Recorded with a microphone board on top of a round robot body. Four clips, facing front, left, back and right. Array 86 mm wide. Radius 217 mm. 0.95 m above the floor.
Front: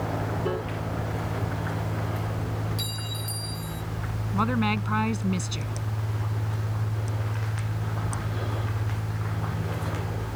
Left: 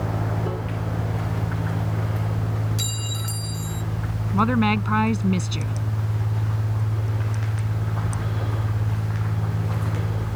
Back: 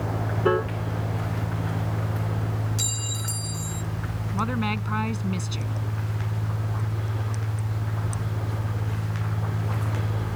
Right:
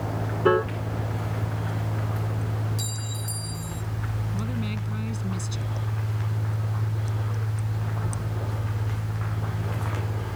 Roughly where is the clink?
Left.